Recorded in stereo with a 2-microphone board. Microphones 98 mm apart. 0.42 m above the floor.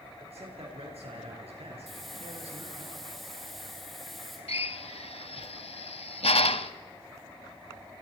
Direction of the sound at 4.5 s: 80° left.